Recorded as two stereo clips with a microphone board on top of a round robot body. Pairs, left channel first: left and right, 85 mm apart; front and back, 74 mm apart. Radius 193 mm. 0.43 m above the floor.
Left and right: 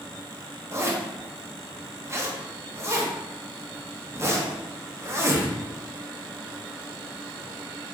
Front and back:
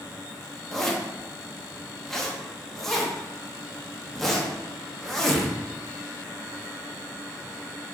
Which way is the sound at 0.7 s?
80° right.